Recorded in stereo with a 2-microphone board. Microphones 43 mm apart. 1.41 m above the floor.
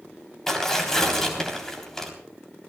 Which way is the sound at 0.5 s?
10° left (ahead or behind).